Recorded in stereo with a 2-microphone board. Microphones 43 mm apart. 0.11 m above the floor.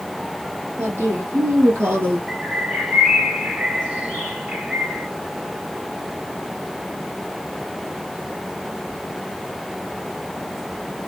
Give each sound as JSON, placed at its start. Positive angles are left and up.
{"t": 0.8, "sound": "a woman speaking", "side_deg": -65, "distance_m": 3.0}
{"t": 2.3, "sound": "a bird", "side_deg": -30, "distance_m": 1.8}